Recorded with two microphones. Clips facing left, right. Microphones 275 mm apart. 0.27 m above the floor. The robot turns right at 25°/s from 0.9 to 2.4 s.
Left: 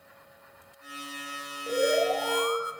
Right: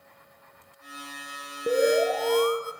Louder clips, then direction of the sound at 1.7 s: Right 4 dB; 65° right (ahead or behind).